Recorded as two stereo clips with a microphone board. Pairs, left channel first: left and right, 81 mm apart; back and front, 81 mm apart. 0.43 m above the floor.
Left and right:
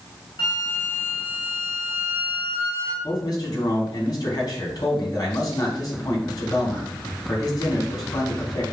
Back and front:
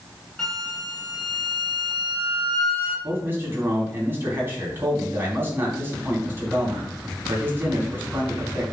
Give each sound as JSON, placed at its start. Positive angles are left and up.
{"t": 0.4, "sound": "a flute", "azimuth_deg": 95, "distance_m": 3.5}
{"t": 3.0, "sound": "a man speaking", "azimuth_deg": 60, "distance_m": 3.0}